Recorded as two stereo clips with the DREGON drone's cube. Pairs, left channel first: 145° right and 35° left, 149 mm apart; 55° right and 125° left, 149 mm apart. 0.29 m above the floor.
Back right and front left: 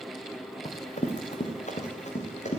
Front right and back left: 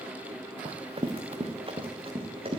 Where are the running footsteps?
Straight behind, 1.6 m; by 2.6 s 175° left, 3 m.